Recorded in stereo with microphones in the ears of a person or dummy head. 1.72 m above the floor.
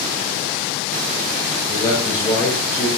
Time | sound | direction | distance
1.7 | a man speaking | 15° left (ahead or behind) | 7 m